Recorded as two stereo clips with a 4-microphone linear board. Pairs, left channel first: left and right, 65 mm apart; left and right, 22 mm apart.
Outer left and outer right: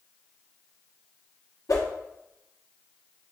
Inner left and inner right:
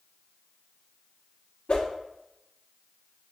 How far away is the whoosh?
About 1.1 m.